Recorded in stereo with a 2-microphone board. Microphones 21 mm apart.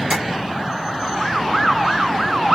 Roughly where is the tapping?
Right.